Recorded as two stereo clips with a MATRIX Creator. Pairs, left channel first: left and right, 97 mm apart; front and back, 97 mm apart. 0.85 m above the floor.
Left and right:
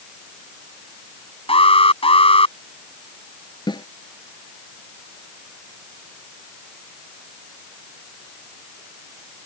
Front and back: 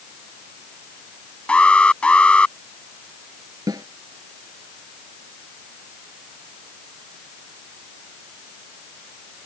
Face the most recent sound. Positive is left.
turn(degrees=130)